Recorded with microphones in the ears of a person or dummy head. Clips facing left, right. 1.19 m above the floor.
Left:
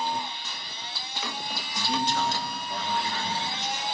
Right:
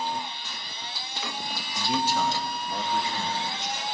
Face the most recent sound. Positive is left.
turn(degrees=-25)  # may be behind; listen again after turning